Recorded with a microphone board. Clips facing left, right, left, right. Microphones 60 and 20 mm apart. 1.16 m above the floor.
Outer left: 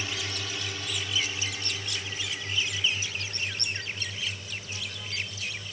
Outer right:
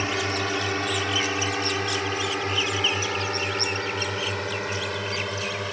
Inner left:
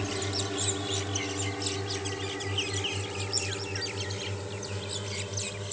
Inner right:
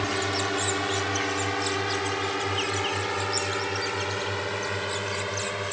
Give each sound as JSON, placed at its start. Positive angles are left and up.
{"t": 0.0, "sound": "a drone", "side_deg": -50}